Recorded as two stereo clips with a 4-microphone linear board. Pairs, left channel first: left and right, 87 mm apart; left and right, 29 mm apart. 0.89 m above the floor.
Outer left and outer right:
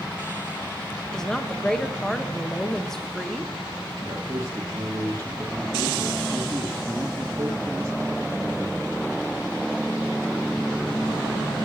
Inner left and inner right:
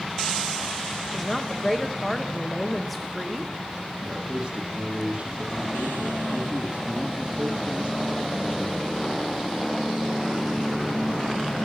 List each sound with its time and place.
1.1 s a woman speaking: 5° left (ahead or behind), 1.0 m
4.0 s a man speaking: 35° right (ahead or behind), 1.5 m